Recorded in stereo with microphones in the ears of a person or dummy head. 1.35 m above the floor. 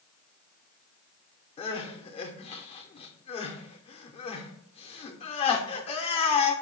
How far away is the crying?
About 0.6 m.